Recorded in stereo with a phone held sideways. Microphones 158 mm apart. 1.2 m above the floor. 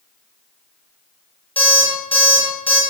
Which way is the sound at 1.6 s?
35° left (ahead or behind).